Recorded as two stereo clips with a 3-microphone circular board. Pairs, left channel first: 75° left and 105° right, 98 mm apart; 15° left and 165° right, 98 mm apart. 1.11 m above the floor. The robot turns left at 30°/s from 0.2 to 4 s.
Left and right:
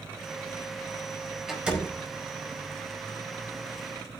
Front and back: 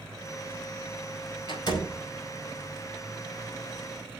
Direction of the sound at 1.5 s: 20° right.